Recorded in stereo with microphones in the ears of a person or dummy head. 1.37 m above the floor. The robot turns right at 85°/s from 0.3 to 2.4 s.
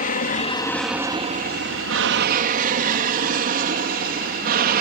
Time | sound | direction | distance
0.0 | an aircraft | 40° left (ahead or behind) | ?